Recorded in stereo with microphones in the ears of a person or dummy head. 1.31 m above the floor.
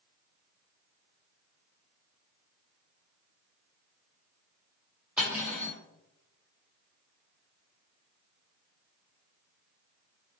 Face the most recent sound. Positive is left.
turn(degrees=-5)  # may be behind; listen again after turning